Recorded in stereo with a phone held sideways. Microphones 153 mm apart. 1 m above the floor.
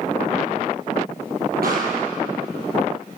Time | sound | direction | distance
1.6 | a pop | 80° right | 9.5 m